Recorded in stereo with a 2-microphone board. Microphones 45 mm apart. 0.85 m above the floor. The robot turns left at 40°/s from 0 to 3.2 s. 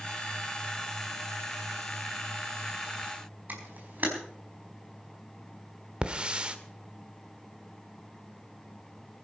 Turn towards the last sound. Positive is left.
turn(degrees=-25)  # may be behind; listen again after turning